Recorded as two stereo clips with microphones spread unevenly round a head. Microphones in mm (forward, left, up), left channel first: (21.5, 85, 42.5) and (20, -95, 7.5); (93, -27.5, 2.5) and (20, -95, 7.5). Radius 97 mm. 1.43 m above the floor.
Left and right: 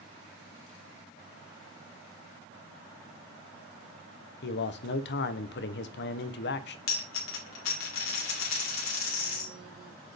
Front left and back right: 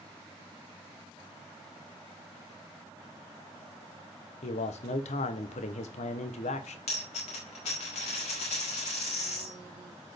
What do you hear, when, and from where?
4.4 s a man speaking: 60° left, 0.9 m
6.9 s a dropped coin: 85° left, 2.5 m